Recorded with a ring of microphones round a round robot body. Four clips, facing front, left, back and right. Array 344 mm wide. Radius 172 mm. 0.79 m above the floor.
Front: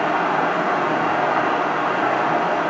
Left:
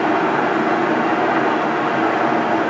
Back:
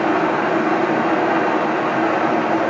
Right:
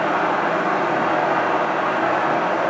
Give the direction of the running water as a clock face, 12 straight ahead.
7 o'clock.